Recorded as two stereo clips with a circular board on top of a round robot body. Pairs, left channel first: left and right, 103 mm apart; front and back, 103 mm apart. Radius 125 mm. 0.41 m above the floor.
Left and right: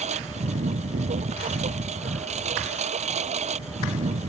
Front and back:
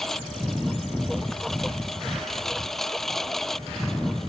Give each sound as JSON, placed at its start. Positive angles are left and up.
{"t": 0.0, "sound": "a lawn mower", "azimuth_deg": -90}